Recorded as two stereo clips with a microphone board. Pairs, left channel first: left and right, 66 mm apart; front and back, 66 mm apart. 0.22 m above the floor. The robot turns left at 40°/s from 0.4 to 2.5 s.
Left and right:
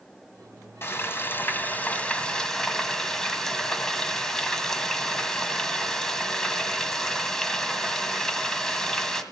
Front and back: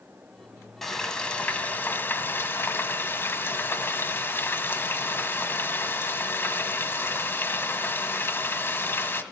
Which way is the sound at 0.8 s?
80° left.